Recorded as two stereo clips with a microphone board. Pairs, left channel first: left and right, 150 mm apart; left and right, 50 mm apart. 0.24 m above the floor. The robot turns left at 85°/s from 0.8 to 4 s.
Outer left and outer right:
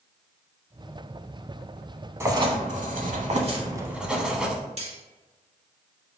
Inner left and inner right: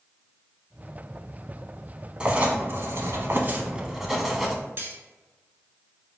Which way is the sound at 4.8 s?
45° right (ahead or behind).